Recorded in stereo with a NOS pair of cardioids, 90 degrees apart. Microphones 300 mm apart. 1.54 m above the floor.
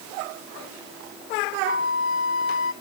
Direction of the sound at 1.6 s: 45° left.